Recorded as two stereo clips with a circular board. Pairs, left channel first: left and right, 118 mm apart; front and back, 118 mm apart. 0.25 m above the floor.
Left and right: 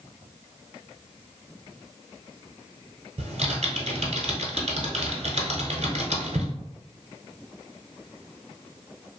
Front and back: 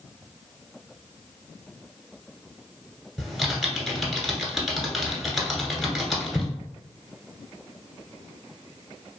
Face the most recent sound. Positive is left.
turn(degrees=-90)